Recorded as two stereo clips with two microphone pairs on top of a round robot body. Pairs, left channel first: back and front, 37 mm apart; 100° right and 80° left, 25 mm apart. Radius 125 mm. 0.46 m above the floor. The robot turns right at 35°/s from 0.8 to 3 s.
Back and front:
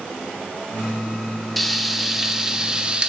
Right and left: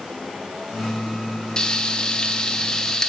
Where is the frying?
115° right, 0.7 m; by 3.1 s 60° right, 0.7 m.